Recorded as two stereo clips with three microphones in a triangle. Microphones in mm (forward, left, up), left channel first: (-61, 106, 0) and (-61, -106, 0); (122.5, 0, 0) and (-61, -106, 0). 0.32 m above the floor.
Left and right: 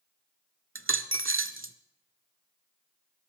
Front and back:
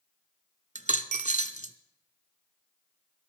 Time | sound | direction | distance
0.8 | a dropped coin | 90° right | 0.6 m